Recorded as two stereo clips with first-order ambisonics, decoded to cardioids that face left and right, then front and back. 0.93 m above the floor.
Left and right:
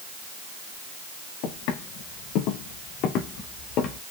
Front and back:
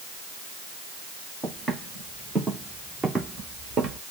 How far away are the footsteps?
About 3 m.